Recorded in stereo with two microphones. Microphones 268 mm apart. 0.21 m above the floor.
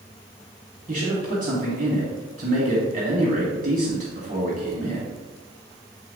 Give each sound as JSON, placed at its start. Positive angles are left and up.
{"t": 0.9, "sound": "a man speaking", "side_deg": -30, "distance_m": 1.5}